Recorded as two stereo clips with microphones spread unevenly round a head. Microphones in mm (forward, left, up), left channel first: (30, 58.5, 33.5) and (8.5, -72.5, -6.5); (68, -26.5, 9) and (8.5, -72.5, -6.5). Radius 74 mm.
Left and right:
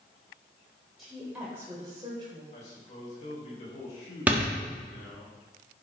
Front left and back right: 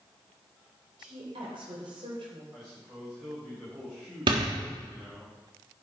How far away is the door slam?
About 1.5 m.